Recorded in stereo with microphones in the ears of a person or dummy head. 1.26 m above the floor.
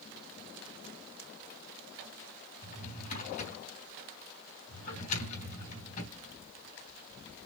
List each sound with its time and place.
2.6 s a drawer: 45° left (ahead or behind), 3.5 m